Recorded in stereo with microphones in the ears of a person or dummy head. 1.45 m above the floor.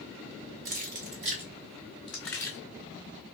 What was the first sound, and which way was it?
Keys jangling, 45° right (ahead or behind).